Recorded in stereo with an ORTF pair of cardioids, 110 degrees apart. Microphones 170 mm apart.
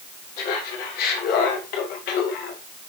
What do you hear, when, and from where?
0.4 s laughter: 70° left, 4 m; by 2.6 s 75° left, 1.8 m